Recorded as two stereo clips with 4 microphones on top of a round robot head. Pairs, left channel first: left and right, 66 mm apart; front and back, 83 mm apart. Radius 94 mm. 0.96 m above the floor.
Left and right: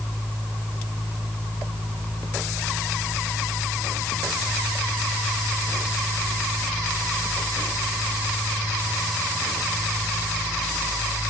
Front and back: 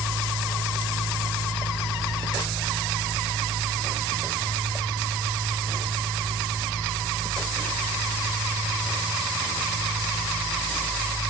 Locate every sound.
Only background noise.